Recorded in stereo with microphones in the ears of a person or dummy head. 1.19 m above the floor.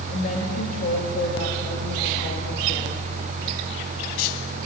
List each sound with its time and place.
0.1 s a woman speaking: 45° left (ahead or behind), 2 m